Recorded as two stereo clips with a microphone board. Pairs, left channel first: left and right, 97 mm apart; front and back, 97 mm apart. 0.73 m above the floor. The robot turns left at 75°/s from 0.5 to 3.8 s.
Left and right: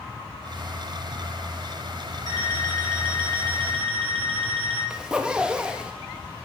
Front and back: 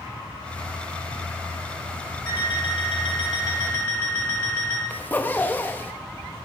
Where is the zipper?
20° right, 0.6 m.